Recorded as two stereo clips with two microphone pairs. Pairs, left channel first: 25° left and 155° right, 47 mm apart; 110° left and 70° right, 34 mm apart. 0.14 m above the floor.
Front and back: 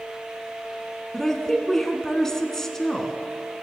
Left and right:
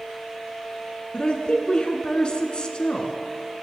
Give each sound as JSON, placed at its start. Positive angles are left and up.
{"t": 1.1, "sound": "a woman speaking", "azimuth_deg": 95, "distance_m": 1.2}